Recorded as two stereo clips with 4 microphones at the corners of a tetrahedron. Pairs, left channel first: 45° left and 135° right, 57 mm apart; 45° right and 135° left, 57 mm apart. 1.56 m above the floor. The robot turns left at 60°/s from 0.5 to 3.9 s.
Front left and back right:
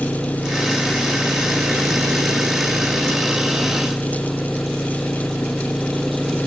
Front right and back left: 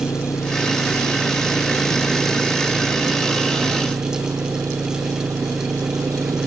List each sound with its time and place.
0.0 s an engine running: 20° right; by 6.5 s 135° left